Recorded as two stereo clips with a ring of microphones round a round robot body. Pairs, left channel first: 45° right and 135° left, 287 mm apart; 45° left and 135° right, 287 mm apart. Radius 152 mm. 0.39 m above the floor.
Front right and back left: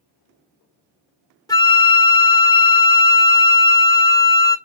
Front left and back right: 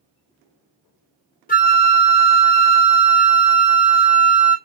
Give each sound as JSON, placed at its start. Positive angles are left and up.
{"t": 1.5, "sound": "a flute", "azimuth_deg": 20, "distance_m": 1.4}